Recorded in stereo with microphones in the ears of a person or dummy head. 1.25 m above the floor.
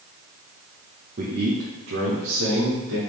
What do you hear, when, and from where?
1.2 s a man speaking: 45° right (ahead or behind), 1.0 m; by 3.0 s 60° right (ahead or behind), 2.5 m